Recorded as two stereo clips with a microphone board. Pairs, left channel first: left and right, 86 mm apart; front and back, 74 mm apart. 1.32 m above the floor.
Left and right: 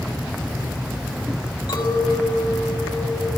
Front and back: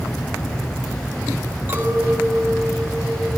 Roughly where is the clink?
Behind left.